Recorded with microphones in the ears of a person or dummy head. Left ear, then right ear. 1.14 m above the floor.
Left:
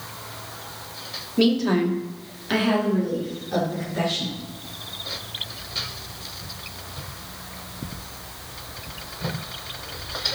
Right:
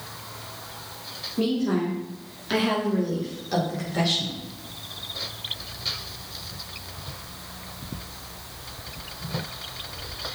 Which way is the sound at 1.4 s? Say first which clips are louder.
Left 5 dB; 55° left (ahead or behind).